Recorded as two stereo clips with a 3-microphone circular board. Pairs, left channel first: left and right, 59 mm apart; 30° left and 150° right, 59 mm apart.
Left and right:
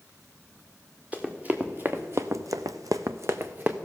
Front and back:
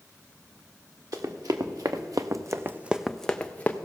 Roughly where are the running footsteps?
Behind.